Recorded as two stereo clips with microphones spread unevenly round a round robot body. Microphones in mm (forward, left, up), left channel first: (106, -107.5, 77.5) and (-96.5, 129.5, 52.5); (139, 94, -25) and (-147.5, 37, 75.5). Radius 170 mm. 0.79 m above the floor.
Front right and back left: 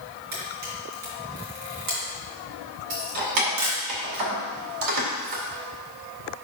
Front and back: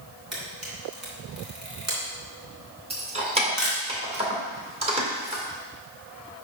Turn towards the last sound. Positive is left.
turn(degrees=120)